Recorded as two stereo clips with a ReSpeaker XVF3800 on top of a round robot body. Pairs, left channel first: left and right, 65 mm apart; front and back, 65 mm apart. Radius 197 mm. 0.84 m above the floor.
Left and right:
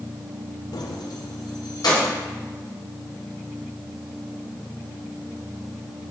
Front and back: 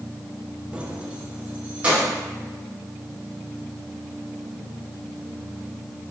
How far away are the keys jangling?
About 0.5 m.